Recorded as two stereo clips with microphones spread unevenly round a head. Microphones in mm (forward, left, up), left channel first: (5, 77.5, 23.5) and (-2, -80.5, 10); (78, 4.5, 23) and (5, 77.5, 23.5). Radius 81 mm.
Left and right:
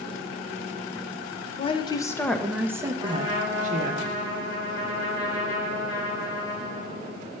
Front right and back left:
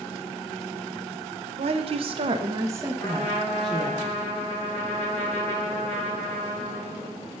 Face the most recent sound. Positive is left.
turn(degrees=20)